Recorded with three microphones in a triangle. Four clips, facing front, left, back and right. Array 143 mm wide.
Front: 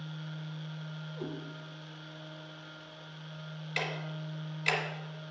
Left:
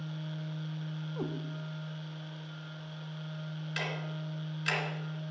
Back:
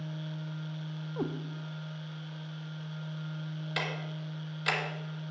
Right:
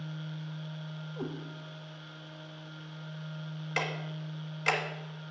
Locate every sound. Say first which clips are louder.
1.2 s a cat meowing: left 1 dB, back 6 dB; 175° left, 0.7 m
3.8 s ticking: right 3 dB, front 1 dB; 110° right, 1.2 m